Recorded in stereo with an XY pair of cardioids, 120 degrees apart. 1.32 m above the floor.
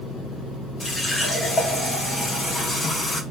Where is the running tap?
20° left, 1.0 m.